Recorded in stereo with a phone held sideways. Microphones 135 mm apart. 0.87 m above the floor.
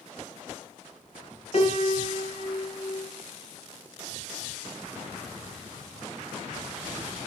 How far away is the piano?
About 5.5 m.